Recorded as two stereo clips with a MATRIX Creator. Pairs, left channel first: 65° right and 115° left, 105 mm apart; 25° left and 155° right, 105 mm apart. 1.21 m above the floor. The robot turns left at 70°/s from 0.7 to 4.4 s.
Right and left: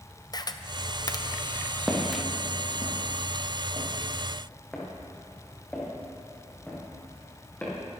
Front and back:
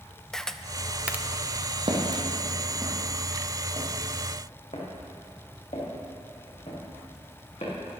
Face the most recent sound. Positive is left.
turn(degrees=10)